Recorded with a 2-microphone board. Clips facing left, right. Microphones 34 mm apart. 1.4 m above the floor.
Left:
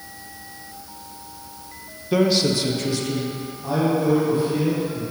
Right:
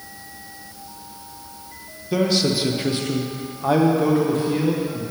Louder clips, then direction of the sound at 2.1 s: Left 1 dB; 15° left (ahead or behind).